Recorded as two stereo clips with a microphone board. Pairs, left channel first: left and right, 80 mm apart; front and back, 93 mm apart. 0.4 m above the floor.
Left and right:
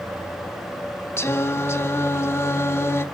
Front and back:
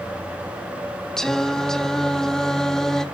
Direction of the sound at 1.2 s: 80° left.